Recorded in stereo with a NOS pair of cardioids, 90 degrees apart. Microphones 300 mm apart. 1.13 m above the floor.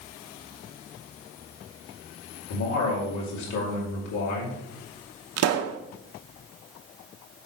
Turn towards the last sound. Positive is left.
turn(degrees=-55)